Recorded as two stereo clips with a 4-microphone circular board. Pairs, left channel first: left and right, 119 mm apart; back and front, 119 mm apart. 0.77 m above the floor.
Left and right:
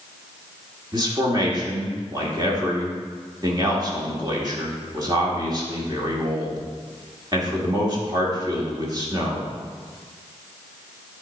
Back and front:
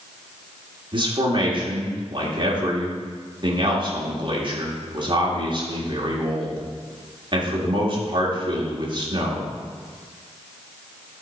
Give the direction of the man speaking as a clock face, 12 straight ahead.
1 o'clock.